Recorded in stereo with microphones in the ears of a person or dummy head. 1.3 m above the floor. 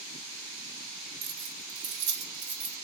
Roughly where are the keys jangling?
Right.